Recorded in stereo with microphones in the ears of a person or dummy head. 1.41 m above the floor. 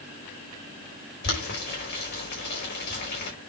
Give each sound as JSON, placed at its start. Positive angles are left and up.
{"t": 1.2, "sound": "boiling", "side_deg": 55, "distance_m": 4.0}